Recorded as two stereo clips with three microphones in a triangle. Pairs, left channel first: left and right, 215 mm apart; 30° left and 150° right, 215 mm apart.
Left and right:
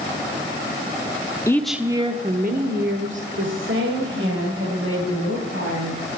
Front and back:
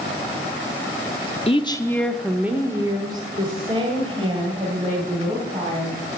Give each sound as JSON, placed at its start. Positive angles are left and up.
{"t": 1.5, "sound": "a woman speaking", "azimuth_deg": 35, "distance_m": 0.8}